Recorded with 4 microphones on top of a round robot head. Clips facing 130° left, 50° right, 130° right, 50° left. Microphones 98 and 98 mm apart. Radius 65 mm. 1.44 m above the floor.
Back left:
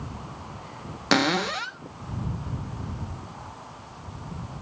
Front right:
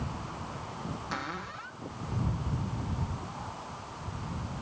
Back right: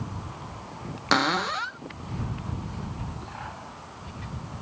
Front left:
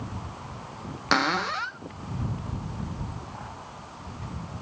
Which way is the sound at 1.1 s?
145° left.